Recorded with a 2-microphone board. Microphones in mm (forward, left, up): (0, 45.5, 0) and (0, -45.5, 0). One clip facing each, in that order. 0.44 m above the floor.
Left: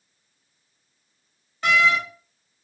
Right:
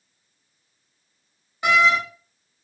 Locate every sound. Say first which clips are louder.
1.6 s a door slam: right 2 dB; 15° right (ahead or behind), 0.7 m